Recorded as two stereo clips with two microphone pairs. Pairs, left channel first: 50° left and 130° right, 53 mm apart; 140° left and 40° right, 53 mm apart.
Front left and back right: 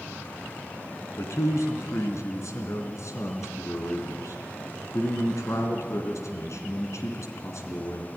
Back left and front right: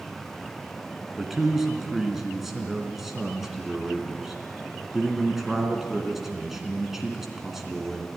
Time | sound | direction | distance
1.2 | a man speaking | 45° left | 3 m